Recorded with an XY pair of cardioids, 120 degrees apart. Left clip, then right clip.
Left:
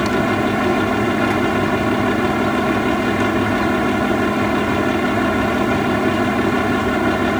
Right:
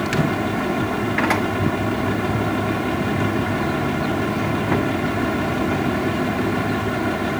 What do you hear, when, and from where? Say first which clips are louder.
0.0 s a fan: left 4 dB; 35° left